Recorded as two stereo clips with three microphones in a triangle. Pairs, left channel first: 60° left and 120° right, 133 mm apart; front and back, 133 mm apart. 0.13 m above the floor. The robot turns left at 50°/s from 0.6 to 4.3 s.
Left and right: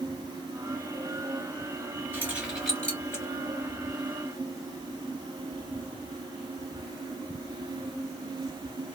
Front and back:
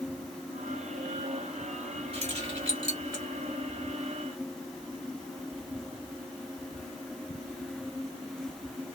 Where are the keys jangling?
175° left, 1.4 m; by 3.2 s 120° left, 1.4 m.